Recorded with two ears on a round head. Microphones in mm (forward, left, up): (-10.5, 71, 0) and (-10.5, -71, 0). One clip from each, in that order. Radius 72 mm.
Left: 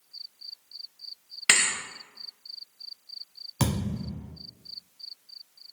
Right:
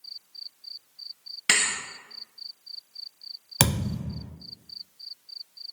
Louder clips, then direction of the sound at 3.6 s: Right 5 dB; 50° right (ahead or behind).